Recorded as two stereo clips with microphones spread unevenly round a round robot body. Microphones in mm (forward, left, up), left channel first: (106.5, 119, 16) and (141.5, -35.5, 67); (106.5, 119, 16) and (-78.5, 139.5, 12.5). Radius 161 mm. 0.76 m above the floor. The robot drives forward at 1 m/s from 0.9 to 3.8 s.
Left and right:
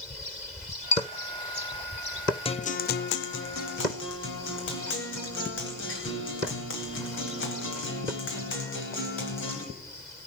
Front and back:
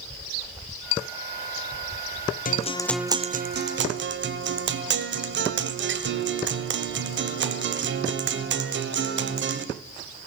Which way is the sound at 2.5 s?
35° left.